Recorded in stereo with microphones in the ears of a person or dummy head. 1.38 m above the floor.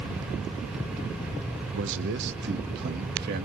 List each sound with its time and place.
1.7 s a man speaking: 75° right (ahead or behind), 1.1 m; by 3.5 s 55° right (ahead or behind), 2.5 m